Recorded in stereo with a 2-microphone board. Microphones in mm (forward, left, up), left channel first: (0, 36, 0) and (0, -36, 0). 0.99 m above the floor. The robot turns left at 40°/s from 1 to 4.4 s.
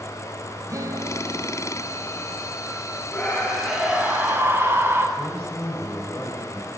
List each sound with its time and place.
0.7 s a guitar: 65° right, 1.4 m; by 2.6 s 130° right, 1.4 m
3.1 s a scream: 20° left, 9.5 m; by 5.1 s 35° right, 9.5 m
5.2 s a man speaking: 15° left (ahead or behind), 6 m